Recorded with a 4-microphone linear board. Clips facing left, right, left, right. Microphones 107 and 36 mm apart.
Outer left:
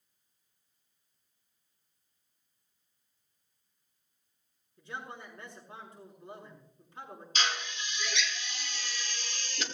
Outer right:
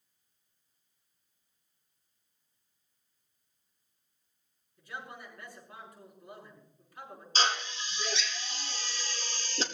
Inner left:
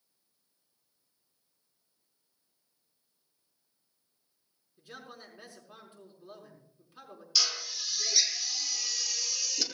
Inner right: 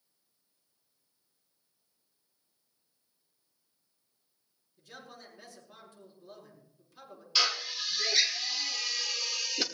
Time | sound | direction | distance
4.8 | a man speaking | 25° left (ahead or behind) | 6 m
7.3 | a drill | 35° right (ahead or behind) | 1.4 m